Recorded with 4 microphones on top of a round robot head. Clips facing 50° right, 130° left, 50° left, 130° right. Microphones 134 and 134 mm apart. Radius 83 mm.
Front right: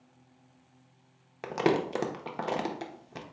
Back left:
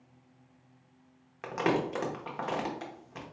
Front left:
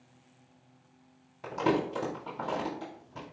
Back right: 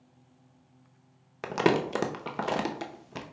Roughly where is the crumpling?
Right.